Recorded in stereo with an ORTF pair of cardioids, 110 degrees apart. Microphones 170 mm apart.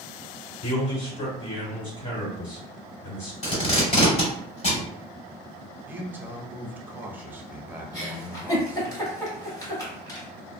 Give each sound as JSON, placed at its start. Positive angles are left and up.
{"t": 0.6, "sound": "a man speaking", "azimuth_deg": 35, "distance_m": 1.9}
{"t": 3.4, "sound": "tape being pulled", "azimuth_deg": 40, "distance_m": 1.9}
{"t": 5.9, "sound": "a man speaking", "azimuth_deg": -10, "distance_m": 0.7}
{"t": 7.9, "sound": "a giggle", "azimuth_deg": 20, "distance_m": 1.7}